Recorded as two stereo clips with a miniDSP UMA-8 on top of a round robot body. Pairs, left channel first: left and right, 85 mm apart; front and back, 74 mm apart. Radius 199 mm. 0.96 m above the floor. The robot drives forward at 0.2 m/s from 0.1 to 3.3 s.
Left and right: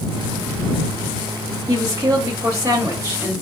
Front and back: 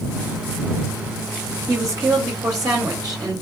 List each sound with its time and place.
1.7 s a woman speaking: 135° right, 1.0 m; by 3.4 s 150° right, 1.2 m